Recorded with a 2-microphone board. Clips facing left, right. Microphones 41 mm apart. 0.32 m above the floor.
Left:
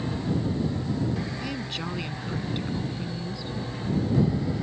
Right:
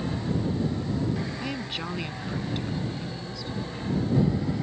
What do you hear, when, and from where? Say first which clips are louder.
1.4 s a woman speaking: even; 15° right (ahead or behind); by 3.6 s 20° left (ahead or behind)